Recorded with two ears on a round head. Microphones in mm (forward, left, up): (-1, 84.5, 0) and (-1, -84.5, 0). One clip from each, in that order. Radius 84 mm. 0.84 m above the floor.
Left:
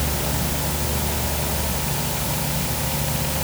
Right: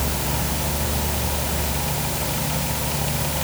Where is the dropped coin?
No dropped coin in this recording.